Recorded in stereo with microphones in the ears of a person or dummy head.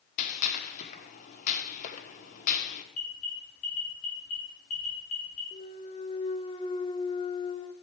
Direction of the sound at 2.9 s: 45° left (ahead or behind).